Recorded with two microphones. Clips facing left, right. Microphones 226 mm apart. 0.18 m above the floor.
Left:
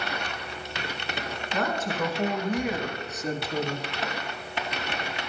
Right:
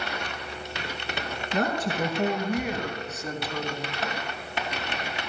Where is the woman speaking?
40° right (ahead or behind), 2 m; by 3.9 s 35° left (ahead or behind), 1.9 m.